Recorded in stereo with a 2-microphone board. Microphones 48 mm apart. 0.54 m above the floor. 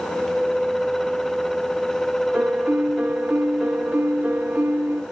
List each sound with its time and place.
2.3 s a piano: 40° right (ahead or behind), 1.7 m